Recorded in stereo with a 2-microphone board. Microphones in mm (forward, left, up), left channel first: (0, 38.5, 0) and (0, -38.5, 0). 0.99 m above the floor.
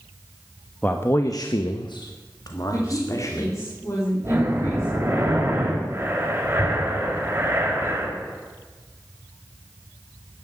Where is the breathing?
25° right (ahead or behind), 4 m.